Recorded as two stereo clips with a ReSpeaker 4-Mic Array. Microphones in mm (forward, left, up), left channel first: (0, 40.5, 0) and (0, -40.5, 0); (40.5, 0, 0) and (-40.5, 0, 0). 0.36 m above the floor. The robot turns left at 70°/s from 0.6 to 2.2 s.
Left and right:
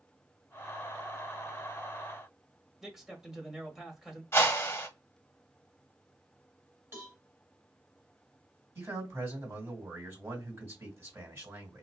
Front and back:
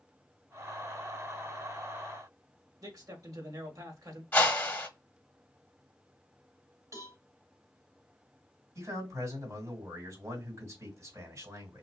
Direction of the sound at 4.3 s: 55° left.